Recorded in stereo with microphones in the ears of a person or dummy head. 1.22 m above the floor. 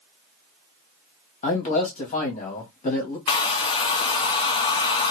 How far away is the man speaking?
About 1.4 m.